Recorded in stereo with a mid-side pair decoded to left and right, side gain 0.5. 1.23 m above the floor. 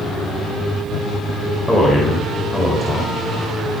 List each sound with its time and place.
1.7 s a man speaking: 15° left, 5 m